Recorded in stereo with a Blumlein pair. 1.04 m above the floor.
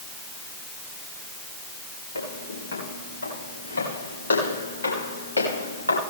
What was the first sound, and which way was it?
Footsteps, 65° left.